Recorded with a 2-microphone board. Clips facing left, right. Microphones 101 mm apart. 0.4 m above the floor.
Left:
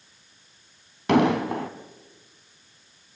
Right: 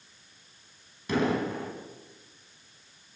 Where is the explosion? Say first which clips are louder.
Left 7 dB; 70° left (ahead or behind), 3 m.